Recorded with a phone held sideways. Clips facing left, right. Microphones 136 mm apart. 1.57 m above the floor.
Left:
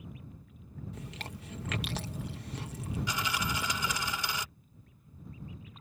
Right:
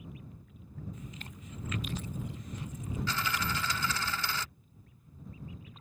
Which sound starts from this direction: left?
Chewing, at 0.9 s.